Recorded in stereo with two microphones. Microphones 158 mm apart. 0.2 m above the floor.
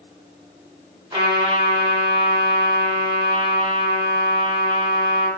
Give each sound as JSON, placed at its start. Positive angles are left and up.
{"t": 1.1, "sound": "a trumpet", "side_deg": -35, "distance_m": 0.9}